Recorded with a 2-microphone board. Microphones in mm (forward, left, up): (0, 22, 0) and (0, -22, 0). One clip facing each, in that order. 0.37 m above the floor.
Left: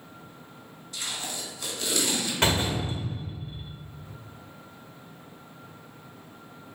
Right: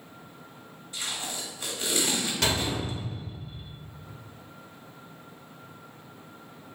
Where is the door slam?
30° left (ahead or behind), 0.9 m.